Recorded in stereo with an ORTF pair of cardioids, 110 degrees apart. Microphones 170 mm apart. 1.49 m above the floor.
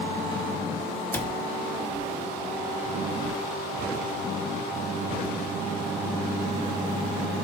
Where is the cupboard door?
10° left, 1.1 m.